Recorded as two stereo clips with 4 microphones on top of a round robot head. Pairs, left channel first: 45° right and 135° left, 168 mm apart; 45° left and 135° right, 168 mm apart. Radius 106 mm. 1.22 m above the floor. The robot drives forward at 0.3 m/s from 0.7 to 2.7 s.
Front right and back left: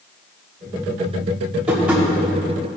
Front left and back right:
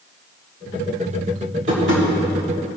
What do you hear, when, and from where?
1.7 s tapping: 145° right, 3.5 m